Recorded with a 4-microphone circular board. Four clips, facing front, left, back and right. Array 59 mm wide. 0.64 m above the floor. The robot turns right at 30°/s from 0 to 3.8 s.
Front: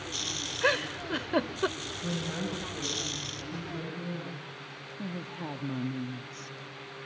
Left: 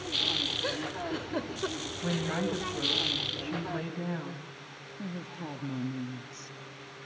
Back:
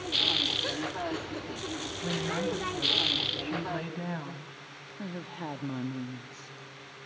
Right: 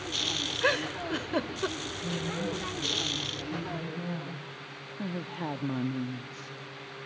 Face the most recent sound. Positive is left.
turn(degrees=-115)